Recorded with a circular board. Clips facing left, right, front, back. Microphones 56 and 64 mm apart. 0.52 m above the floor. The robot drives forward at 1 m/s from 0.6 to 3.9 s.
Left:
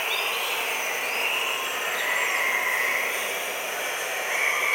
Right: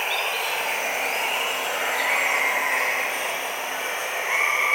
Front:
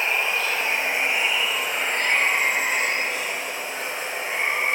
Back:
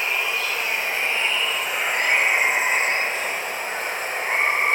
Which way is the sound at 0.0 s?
60° right.